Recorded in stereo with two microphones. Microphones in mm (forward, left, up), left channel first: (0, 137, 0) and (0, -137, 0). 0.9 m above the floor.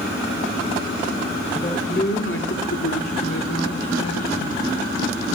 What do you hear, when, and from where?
1.5 s a man speaking: 25° left (ahead or behind), 2 m; by 4.6 s 60° left (ahead or behind), 3 m